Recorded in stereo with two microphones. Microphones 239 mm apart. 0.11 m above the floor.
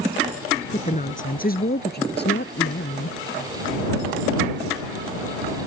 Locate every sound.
0.7 s a woman speaking: 30° left (ahead or behind); by 3.2 s 55° left (ahead or behind)